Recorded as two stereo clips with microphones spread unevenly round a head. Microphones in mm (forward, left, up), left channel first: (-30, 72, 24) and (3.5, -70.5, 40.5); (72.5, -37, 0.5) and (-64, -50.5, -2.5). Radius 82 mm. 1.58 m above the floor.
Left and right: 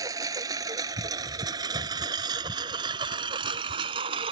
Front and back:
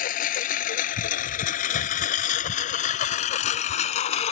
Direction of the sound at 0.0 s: 10° right.